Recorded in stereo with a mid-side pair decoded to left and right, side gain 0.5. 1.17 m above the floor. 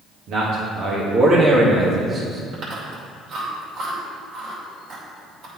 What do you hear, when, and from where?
0.3 s a man speaking: 55° right, 1.8 m; by 2.4 s 15° right, 1.9 m
2.5 s chewing: 60° right, 2.5 m